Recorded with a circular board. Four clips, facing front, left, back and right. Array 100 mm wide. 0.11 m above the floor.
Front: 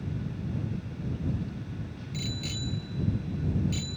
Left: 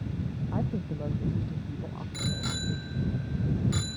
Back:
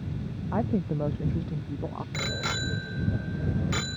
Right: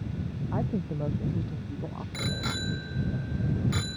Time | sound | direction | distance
0.5 | a woman speaking | 170° right | ?
2.1 | a bicycle bell | 165° right | ?